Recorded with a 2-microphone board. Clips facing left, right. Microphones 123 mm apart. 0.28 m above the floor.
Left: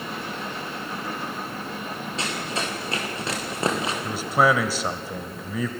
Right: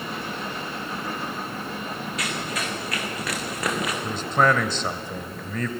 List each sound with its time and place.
2.2 s running footsteps: 30° left (ahead or behind), 6 m; by 3.9 s 25° left (ahead or behind), 5 m
4.0 s a man speaking: 10° left (ahead or behind), 1.1 m